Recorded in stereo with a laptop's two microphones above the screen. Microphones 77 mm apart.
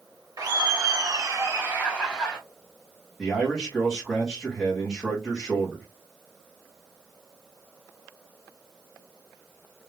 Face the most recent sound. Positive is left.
turn(degrees=-10)  # may be behind; listen again after turning